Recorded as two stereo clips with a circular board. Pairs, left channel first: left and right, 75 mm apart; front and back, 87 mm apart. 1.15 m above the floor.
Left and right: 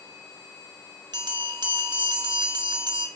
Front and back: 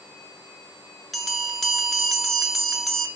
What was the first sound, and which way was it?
A bell, 90° right.